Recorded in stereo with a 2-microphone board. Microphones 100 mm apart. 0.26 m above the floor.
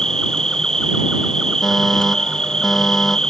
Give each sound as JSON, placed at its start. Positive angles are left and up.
{"t": 0.0, "sound": "an insect", "side_deg": 5}
{"t": 1.6, "sound": "a fire alarm", "side_deg": 0}